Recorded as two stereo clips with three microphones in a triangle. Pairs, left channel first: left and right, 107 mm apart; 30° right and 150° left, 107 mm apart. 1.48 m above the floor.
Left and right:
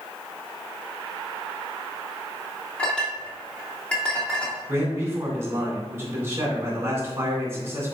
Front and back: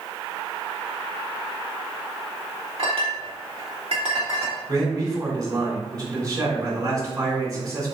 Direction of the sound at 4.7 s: 155° right.